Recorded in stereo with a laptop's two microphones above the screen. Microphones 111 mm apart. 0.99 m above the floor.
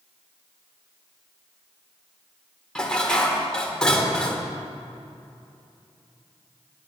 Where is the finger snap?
I don't hear a finger snap.